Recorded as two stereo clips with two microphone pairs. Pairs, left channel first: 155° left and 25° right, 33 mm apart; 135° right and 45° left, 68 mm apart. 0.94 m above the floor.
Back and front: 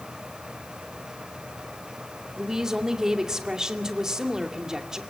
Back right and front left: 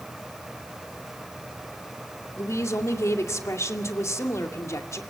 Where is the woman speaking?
95° right, 2.5 m.